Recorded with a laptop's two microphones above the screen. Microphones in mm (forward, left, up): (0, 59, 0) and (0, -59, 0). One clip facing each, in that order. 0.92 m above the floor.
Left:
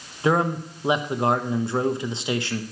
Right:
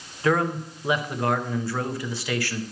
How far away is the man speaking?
About 0.7 m.